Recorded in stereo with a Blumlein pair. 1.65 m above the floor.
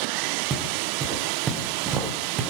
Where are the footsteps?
20° right, 5.5 m; by 2.5 s 30° right, 4.5 m.